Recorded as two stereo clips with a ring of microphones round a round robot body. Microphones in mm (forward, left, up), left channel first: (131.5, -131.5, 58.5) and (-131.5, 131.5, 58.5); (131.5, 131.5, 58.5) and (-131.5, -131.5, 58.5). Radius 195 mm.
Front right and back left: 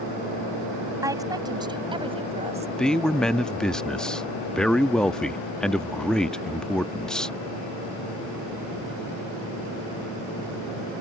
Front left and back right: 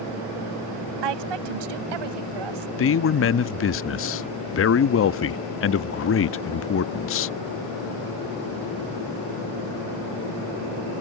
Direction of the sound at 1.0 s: 145° right.